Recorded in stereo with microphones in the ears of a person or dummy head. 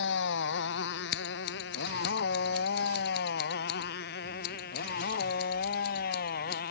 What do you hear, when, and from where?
0.0 s a motorcycle: 60° left (ahead or behind); by 6.7 s 45° left (ahead or behind)
1.1 s scissors: 50° left (ahead or behind)